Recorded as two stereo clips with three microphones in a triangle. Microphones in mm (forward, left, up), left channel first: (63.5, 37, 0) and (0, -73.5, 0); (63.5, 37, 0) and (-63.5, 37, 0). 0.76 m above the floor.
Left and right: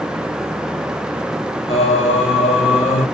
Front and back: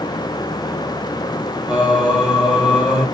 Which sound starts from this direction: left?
Singing, at 1.7 s.